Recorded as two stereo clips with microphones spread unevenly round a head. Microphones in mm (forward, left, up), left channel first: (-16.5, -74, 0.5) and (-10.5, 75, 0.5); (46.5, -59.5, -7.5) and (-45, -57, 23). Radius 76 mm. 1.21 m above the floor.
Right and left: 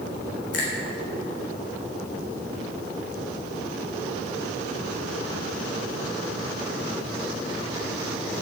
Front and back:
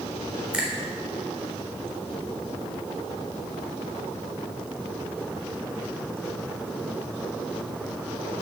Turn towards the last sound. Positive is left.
turn(degrees=-105)